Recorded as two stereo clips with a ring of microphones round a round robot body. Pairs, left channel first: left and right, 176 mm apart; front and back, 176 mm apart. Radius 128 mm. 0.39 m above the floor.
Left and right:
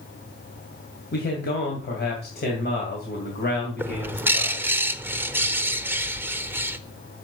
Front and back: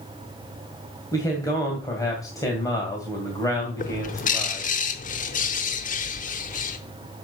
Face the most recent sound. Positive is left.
turn(degrees=-15)